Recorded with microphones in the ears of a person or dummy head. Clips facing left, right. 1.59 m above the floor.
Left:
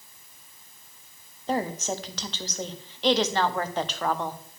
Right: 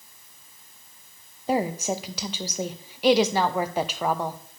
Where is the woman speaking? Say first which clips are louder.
Right 3 dB; 10° right (ahead or behind), 0.7 m.